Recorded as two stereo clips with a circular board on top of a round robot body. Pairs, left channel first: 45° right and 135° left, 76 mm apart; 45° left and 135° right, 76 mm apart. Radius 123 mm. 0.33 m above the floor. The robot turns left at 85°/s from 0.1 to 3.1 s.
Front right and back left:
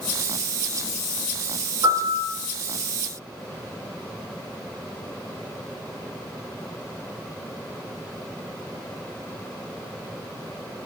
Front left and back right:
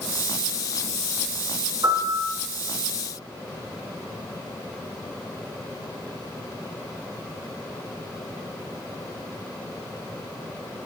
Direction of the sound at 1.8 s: 175° left.